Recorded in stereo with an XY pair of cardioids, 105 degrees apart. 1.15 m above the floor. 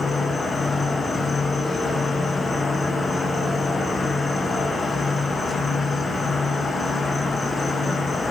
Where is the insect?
30° left, 1.0 m.